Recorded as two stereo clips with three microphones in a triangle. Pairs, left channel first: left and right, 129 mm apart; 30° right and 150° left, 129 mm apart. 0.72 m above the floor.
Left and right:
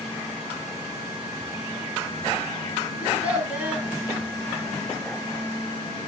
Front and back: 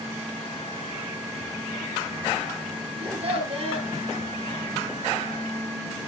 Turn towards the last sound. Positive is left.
turn(degrees=-170)